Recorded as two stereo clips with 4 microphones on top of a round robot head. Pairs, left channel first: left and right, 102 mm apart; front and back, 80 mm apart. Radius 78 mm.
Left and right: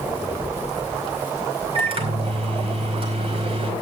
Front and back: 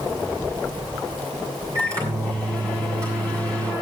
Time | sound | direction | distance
1.8 | a microwave | 120° right | 4.5 m